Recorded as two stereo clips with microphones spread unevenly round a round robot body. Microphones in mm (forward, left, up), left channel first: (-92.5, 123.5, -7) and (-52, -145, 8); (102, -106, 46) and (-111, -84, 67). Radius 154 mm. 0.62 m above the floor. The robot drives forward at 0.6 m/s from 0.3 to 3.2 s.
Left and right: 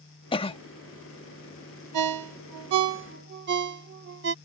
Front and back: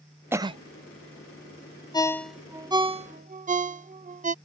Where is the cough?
95° left; by 0.6 s 135° left.